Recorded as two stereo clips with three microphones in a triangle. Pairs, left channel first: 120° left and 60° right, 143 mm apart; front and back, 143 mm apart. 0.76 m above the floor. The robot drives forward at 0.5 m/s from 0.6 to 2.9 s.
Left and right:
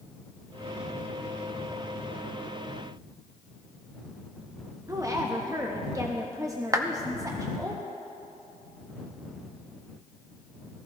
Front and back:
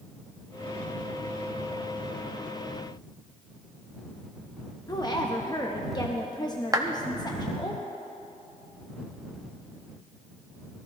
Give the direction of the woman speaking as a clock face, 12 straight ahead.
1 o'clock.